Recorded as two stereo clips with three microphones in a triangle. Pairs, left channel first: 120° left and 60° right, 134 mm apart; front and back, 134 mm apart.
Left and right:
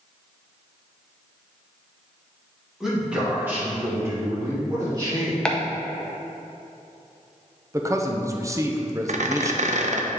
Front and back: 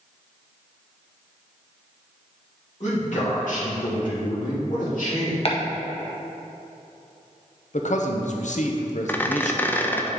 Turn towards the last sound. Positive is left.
turn(degrees=-75)